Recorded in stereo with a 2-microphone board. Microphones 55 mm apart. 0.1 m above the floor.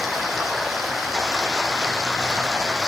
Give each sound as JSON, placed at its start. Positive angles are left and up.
{"t": 0.0, "sound": "running water", "side_deg": -5, "distance_m": 1.8}